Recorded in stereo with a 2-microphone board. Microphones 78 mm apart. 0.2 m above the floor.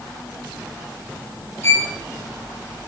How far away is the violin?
About 3 m.